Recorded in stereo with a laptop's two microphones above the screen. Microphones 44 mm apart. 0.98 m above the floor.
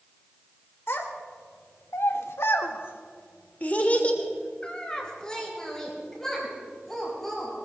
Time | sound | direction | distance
0.9 | a child speaking | 65° left (ahead or behind) | 1.9 m